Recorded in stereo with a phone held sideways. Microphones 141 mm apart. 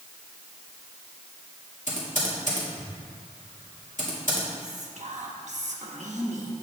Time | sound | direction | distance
1.9 | typing on a keyboard | 70° left (ahead or behind) | 1.6 m
4.6 | whispering | 65° right (ahead or behind) | 1.2 m